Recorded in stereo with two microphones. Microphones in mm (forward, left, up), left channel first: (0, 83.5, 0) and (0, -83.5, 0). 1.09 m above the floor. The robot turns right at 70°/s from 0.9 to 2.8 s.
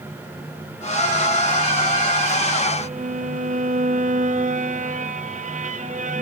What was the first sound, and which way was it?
A violin, 45° right (ahead or behind).